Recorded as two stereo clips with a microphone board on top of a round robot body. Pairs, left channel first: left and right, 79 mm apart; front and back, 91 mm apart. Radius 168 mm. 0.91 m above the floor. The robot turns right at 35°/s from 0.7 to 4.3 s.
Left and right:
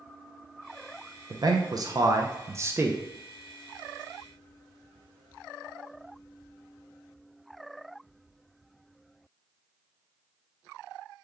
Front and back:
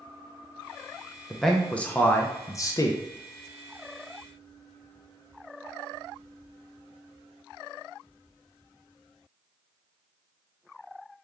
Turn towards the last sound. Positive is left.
turn(degrees=15)